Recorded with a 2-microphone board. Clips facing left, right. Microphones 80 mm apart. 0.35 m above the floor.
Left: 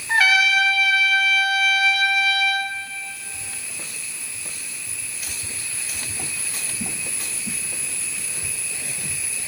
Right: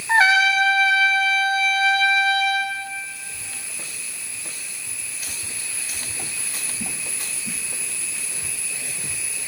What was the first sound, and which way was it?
A trumpet, 35° right (ahead or behind).